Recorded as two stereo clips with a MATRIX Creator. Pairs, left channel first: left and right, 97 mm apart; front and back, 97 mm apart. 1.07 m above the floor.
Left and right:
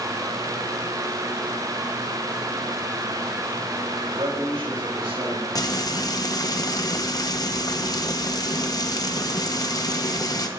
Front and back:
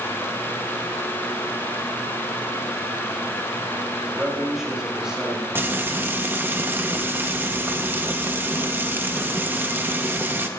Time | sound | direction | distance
4.1 | a man speaking | 95° right | 4.5 m
5.5 | frying | 115° left | 0.9 m